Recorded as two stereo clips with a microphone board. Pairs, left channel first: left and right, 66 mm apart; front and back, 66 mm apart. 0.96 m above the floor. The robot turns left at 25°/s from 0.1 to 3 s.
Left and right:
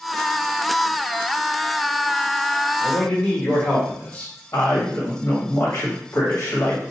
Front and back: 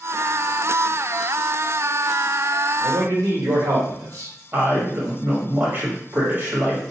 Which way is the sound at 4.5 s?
125° left.